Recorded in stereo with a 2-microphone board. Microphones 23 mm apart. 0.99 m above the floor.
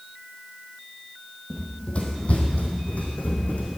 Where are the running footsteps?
40° left (ahead or behind), 2 m; by 3.8 s 75° left (ahead or behind), 4 m.